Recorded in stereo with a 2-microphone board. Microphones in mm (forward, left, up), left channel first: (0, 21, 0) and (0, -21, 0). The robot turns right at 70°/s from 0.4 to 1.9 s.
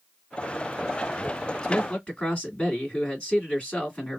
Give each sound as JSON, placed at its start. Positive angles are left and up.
{"t": 1.6, "sound": "a man speaking", "side_deg": 15, "distance_m": 1.8}